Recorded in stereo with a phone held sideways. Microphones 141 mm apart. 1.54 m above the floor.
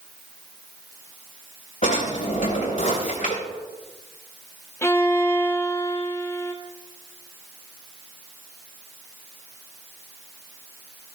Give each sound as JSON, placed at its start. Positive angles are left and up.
{"t": 1.8, "sound": "a drawer", "side_deg": 60, "distance_m": 3.0}
{"t": 4.8, "sound": "a violin", "side_deg": 20, "distance_m": 0.8}